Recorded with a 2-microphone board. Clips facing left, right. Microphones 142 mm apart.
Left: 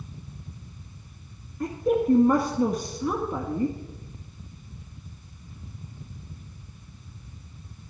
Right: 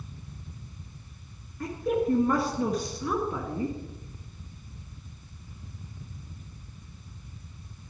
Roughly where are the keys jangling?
I don't hear keys jangling.